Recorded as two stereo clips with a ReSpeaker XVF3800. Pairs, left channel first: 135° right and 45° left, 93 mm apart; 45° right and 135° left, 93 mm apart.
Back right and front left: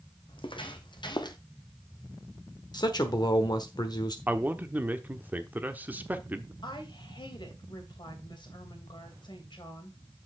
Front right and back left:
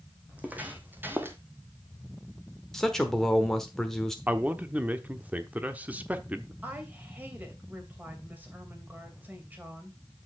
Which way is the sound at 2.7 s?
130° right.